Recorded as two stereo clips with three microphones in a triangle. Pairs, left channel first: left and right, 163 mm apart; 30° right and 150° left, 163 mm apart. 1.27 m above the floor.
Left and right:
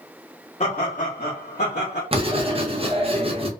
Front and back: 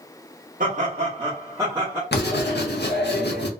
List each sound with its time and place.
0.6 s laughter: 130° left, 0.8 m; by 2.0 s 65° left, 1.0 m
2.1 s writing: 30° right, 0.6 m